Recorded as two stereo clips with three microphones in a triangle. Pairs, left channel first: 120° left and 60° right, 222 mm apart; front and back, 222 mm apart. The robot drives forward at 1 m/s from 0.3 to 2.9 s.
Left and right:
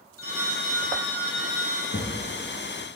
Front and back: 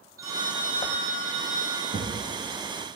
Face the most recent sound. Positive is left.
turn(degrees=160)